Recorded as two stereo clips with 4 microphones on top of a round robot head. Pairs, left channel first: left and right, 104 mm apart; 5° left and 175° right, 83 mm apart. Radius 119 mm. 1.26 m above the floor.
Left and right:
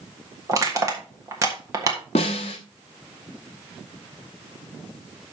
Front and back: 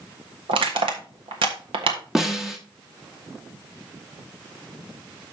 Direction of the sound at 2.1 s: 105° left.